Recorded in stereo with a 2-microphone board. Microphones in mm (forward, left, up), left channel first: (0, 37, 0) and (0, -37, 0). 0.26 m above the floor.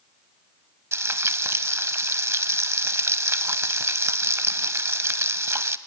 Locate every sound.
0.9 s frying: 40° right (ahead or behind), 0.5 m